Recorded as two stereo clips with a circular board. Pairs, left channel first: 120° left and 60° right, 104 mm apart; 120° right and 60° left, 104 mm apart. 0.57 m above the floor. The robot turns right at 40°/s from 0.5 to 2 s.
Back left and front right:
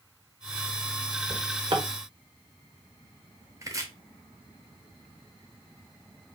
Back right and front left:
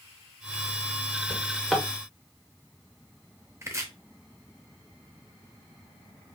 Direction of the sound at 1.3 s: 45° right.